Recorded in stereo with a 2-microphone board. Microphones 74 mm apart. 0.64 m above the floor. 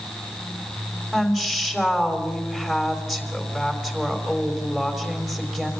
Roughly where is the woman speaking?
Centre.